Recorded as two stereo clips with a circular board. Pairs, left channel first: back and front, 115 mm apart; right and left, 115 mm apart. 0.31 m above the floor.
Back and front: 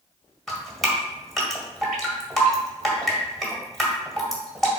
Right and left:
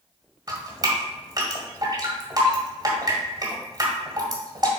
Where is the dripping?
95° left, 1.7 m.